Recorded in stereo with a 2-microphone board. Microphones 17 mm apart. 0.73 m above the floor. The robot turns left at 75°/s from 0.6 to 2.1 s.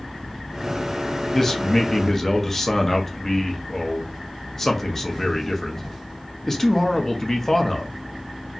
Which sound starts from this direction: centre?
A man speaking, at 1.3 s.